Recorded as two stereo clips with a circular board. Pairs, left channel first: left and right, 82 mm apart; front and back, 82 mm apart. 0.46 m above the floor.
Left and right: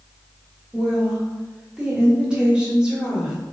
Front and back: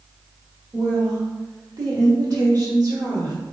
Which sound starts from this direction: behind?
A woman speaking, at 0.7 s.